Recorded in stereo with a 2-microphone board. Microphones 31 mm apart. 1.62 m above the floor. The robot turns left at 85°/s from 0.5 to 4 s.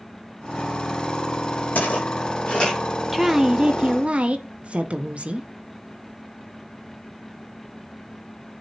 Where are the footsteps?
70° left (ahead or behind), 5 m; by 2.8 s 20° left (ahead or behind), 4.5 m.